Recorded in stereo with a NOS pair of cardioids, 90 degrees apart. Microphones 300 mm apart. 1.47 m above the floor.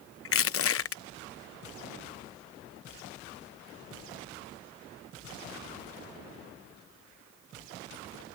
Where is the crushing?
45° left.